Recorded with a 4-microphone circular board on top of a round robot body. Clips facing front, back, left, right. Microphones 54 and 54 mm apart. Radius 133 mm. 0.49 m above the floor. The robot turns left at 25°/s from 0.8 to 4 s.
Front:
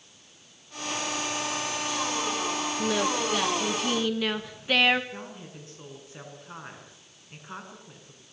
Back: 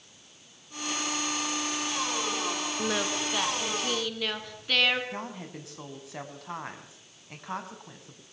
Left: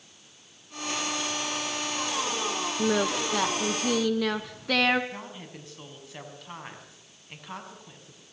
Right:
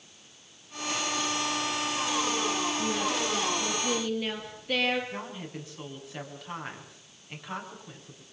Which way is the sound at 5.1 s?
Straight behind.